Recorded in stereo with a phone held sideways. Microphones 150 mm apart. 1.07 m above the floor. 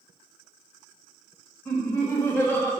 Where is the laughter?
15° left (ahead or behind), 0.8 m.